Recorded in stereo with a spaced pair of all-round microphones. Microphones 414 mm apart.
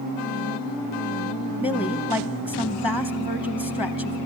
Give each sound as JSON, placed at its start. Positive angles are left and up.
{"t": 1.6, "sound": "a woman speaking", "side_deg": 15, "distance_m": 0.7}